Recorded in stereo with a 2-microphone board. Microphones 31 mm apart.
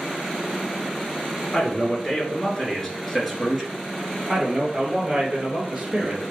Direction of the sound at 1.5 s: 25° left (ahead or behind).